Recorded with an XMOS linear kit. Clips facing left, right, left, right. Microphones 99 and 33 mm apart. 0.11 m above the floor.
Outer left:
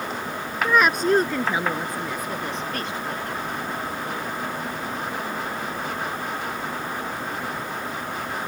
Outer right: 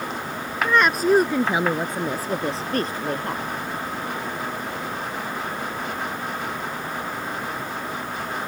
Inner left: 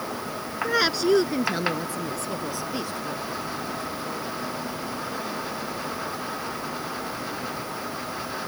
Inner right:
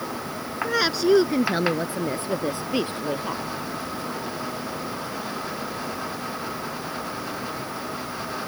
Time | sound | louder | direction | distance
0.6 | a woman speaking | outer right 1 dB, inner right 1 dB | 10° left (ahead or behind) | ?